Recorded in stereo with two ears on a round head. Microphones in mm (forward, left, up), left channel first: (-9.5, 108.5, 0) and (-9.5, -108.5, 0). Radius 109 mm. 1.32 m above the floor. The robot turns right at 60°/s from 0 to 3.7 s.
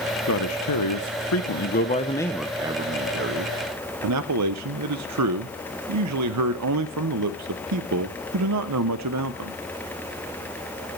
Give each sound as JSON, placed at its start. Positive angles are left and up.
{"t": 0.3, "sound": "a man speaking", "azimuth_deg": 50, "distance_m": 0.8}